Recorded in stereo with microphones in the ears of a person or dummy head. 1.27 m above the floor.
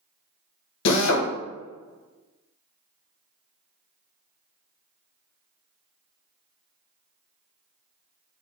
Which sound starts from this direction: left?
A drill, at 0.8 s.